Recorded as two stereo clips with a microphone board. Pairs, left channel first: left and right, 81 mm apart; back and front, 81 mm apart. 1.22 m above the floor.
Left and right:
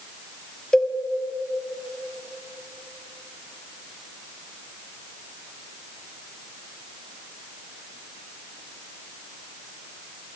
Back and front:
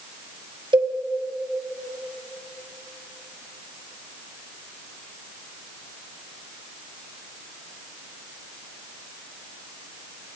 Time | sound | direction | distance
0.7 | a cowbell | 10° left | 2 m